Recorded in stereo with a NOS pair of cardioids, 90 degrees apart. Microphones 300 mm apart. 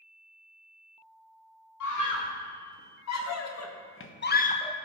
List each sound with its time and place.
1.8 s a scream: 70° left, 3.5 m; by 4.8 s 10° left, 1.0 m